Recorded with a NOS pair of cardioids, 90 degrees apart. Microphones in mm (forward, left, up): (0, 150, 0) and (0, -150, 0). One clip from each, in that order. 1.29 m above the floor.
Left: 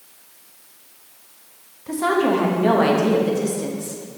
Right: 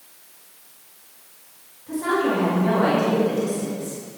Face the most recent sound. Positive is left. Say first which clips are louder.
# left 3 dB
turn(degrees=60)